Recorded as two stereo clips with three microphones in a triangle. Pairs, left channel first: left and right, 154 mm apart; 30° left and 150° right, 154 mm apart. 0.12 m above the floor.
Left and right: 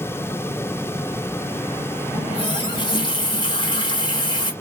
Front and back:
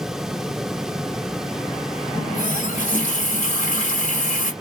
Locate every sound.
2.1 s a running tap: 40° left, 1.5 m